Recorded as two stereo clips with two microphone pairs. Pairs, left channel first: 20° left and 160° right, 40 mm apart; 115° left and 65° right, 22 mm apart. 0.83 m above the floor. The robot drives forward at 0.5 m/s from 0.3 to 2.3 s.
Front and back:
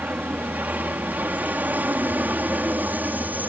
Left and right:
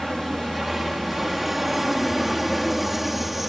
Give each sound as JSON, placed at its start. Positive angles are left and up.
{"t": 0.0, "sound": "an aircraft", "azimuth_deg": -140}